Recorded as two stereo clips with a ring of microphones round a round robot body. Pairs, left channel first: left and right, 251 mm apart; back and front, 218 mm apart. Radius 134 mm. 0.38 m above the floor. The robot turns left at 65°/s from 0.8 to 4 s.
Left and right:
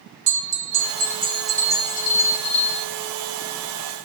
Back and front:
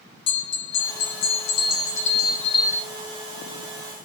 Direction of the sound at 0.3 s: 135° right.